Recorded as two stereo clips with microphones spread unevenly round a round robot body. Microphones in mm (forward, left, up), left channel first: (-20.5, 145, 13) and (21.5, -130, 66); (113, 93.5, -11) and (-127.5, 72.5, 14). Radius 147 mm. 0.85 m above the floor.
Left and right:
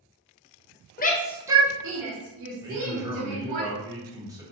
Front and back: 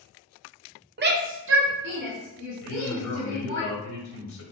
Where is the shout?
135° left, 1.0 m; by 3.6 s 95° right, 3 m.